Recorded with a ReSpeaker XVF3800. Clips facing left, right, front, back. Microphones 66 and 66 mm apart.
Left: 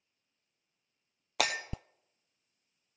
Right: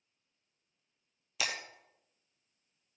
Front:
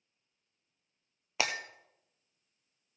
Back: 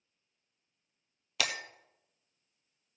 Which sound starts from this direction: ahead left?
Breaking glass, at 1.4 s.